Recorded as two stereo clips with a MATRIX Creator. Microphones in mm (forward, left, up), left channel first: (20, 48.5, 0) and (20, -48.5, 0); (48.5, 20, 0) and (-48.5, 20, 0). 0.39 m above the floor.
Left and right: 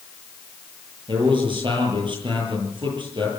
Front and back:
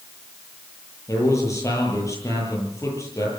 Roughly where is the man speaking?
Ahead right.